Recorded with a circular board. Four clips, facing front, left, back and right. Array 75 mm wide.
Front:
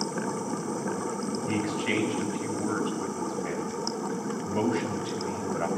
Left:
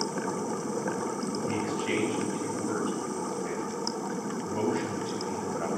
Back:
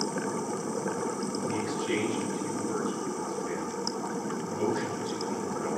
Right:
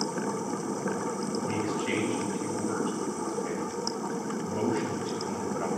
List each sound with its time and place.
1.5 s a man speaking: 10° right, 6 m